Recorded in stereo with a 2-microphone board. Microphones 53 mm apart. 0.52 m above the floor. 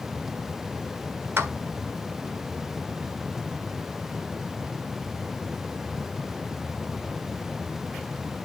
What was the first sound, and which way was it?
A clap, 45° right (ahead or behind).